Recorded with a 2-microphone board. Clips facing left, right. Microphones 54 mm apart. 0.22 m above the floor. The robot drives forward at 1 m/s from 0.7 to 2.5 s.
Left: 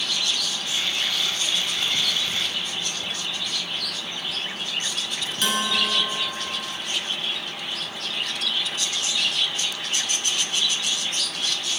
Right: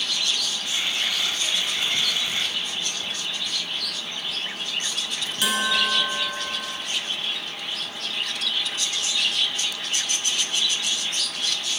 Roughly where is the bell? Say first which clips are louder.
Right 1 dB; centre.